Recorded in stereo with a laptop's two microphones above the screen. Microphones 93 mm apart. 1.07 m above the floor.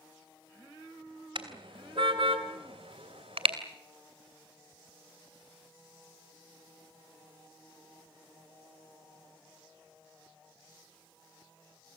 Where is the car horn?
65° right (ahead or behind), 3 m; by 3.5 s 80° right, 2.5 m.